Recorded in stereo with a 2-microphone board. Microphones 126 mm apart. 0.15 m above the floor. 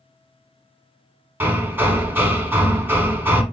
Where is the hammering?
15° right (ahead or behind), 0.9 m.